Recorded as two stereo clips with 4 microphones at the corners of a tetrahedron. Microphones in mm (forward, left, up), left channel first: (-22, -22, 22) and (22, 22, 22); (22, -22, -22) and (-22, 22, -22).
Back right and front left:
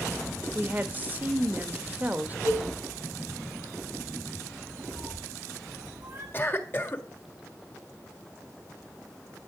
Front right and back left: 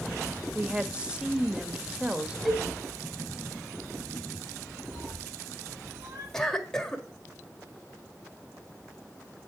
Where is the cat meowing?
100° left, 5.5 m.